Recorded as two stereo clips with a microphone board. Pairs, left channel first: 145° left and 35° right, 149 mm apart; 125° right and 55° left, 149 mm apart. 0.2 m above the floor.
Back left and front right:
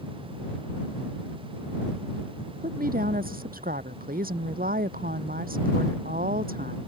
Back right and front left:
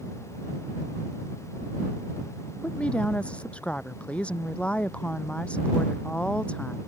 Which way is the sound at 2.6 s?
40° right.